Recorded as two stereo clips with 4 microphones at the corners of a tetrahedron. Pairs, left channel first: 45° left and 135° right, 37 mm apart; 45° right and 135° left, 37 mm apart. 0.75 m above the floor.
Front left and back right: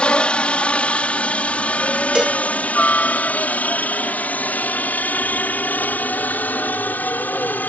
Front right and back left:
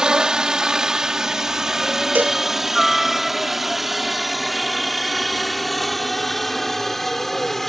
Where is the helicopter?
80° left; by 7.7 s 35° left.